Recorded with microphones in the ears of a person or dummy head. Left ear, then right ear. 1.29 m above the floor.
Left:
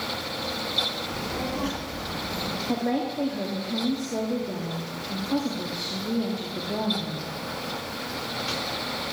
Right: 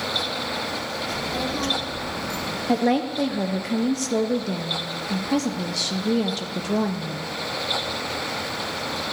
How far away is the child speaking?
About 2.5 m.